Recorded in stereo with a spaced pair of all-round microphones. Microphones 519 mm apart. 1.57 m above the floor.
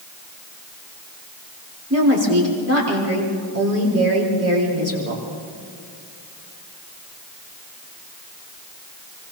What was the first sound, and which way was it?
A woman speaking, 30° right (ahead or behind).